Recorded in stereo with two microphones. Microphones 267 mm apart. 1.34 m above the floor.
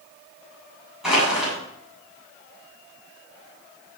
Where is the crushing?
Centre (ahead or behind), 9.5 m.